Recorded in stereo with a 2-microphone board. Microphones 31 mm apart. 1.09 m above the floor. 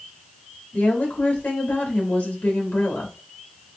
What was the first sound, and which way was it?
A woman speaking, 80° left.